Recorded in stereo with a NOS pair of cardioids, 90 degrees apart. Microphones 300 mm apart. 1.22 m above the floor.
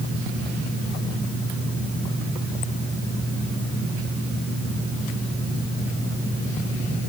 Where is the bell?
I don't hear a bell.